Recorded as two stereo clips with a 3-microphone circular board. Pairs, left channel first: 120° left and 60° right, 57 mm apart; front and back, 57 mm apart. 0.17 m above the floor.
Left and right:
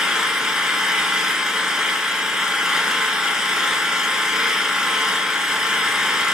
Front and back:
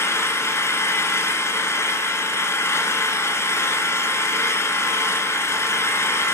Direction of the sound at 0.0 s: 20° left.